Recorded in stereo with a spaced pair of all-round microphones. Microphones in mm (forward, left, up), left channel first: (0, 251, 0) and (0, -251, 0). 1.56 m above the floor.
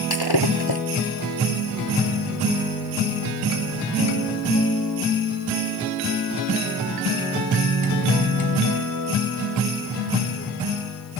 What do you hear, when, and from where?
0.1 s breaking glass: 50° left (ahead or behind)